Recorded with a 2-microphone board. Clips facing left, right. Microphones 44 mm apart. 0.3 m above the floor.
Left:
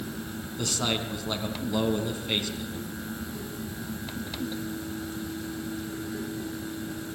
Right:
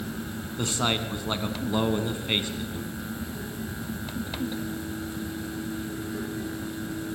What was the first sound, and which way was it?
A man speaking, 25° right (ahead or behind).